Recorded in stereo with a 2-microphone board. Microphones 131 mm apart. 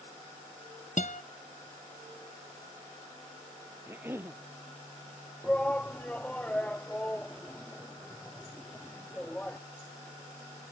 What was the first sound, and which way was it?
A guitar, 70° left (ahead or behind).